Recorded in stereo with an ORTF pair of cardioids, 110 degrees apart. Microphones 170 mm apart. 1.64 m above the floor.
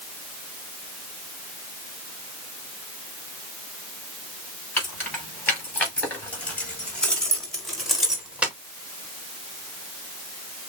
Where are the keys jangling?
10° left, 4.5 m; by 8.6 s 10° right, 1.7 m.